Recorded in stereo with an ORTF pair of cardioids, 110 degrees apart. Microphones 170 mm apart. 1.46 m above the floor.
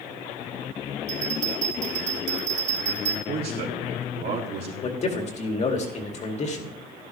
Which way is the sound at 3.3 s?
70° right.